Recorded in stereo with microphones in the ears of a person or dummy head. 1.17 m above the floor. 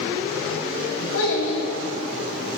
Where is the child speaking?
70° left (ahead or behind), 1.4 m.